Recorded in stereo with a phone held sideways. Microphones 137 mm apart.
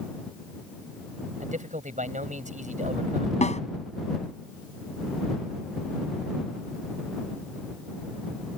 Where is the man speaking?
65° right (ahead or behind).